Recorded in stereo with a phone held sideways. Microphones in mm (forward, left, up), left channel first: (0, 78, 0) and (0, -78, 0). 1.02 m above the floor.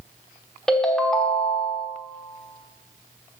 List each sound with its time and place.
0.7 s a ringtone: 5° left (ahead or behind), 1.1 m